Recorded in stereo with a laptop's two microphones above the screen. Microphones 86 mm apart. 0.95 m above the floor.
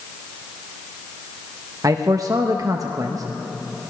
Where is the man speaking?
40° right (ahead or behind), 0.6 m.